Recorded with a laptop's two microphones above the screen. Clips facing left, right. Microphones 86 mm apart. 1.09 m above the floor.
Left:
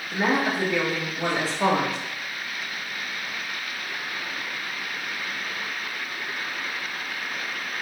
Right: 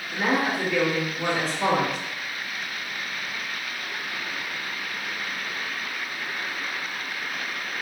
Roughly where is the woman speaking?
Left.